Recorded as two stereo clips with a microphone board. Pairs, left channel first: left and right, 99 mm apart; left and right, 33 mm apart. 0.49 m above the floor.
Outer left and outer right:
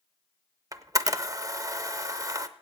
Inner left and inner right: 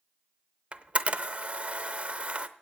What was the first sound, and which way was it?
A camera shutter, 35° right (ahead or behind).